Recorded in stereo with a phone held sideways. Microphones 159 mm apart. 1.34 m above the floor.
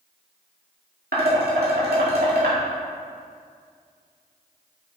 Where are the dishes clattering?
80° right, 2 m.